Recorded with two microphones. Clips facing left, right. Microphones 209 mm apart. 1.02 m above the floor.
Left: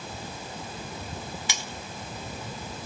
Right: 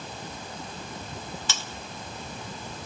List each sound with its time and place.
1.5 s cutlery clinking: 15° left (ahead or behind), 0.6 m